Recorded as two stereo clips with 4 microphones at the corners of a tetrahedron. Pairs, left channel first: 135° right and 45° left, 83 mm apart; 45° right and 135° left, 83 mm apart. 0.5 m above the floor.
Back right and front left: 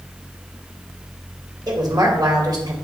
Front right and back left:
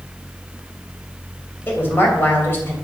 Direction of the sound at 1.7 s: 15° left.